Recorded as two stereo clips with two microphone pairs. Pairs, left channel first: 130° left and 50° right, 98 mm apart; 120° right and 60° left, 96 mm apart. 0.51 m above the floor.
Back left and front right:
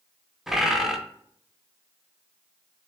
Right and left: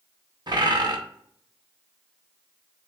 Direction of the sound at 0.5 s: 30° left.